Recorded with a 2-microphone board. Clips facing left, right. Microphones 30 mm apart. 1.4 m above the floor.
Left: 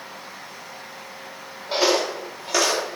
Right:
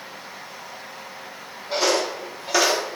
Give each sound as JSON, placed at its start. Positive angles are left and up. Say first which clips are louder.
{"t": 1.7, "sound": "footsteps", "louder": "left 1 dB", "side_deg": 25, "distance_m": 2.0}